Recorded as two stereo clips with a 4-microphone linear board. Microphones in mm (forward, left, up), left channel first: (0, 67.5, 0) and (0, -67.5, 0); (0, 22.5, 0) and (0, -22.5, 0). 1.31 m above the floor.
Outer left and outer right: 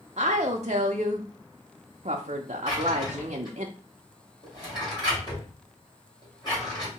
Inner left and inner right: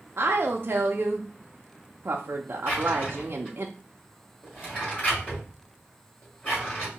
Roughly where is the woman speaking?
Right.